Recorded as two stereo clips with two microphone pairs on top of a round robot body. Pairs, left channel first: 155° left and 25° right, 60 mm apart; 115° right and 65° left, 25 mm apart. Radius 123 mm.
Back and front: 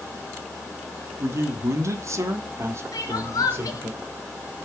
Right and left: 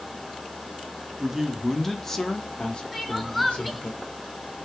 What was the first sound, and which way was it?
A man speaking, 10° left.